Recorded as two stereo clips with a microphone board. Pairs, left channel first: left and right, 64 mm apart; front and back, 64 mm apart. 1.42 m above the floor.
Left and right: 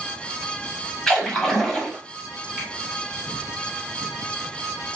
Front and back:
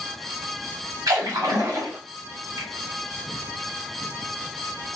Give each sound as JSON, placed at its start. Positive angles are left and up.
{"t": 1.1, "sound": "a splash", "azimuth_deg": 180, "distance_m": 1.5}
{"t": 2.6, "sound": "a finger snap", "azimuth_deg": -170, "distance_m": 2.5}